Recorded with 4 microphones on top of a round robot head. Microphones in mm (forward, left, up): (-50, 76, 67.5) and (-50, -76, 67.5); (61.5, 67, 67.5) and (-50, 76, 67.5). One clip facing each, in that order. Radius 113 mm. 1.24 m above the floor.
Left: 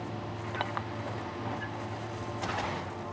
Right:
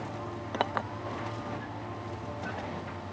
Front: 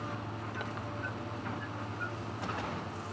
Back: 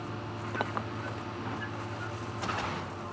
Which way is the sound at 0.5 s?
135° right.